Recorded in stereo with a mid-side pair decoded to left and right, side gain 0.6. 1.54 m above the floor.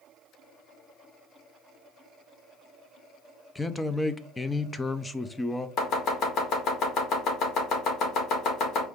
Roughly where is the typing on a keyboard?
No typing on a keyboard in this recording.